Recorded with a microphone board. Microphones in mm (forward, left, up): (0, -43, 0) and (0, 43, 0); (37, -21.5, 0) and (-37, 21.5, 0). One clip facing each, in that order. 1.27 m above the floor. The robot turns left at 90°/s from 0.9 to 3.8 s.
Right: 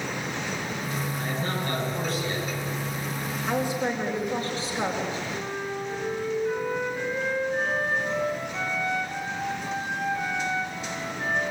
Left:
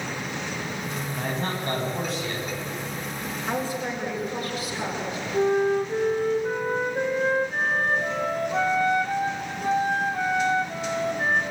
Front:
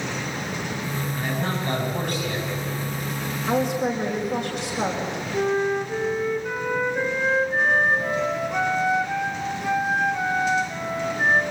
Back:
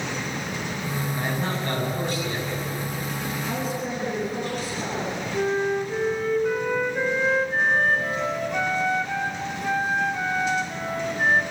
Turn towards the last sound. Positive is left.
turn(degrees=50)